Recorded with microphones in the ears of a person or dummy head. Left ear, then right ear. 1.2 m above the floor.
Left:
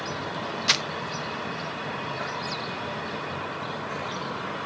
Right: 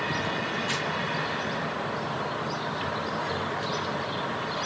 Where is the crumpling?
50° left (ahead or behind), 0.6 m.